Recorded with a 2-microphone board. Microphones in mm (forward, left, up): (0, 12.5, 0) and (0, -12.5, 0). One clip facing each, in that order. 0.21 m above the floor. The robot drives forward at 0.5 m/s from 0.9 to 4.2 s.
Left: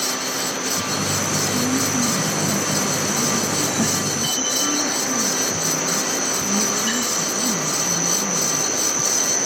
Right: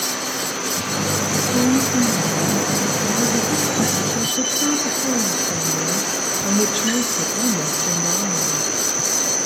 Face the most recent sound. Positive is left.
turn(degrees=-70)  # may be behind; listen again after turning